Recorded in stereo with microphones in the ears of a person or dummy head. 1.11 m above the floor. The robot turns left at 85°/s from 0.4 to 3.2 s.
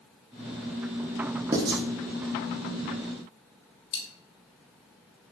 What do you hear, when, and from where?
1.5 s writing: 20° right (ahead or behind), 0.5 m; by 1.8 s 35° right (ahead or behind), 0.5 m
3.9 s a dropped coin: 45° left (ahead or behind), 0.9 m